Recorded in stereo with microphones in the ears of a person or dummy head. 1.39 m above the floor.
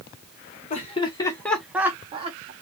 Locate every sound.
0.7 s laughter: 35° left (ahead or behind), 1.4 m; by 2.5 s 35° right (ahead or behind), 1.3 m